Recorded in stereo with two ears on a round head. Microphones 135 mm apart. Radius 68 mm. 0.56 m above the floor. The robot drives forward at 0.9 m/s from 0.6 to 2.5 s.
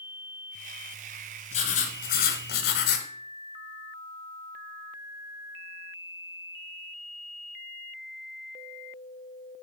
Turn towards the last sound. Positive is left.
turn(degrees=70)  # may be behind; listen again after turning